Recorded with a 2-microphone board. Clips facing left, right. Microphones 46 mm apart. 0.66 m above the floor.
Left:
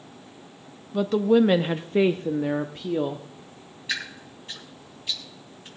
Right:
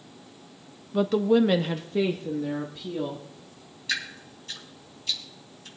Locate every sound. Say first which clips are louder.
0.9 s a woman speaking: left 1 dB; 5° right (ahead or behind), 0.6 m; by 3.2 s 50° left (ahead or behind), 1.1 m
3.9 s dripping: even; 20° left (ahead or behind), 4 m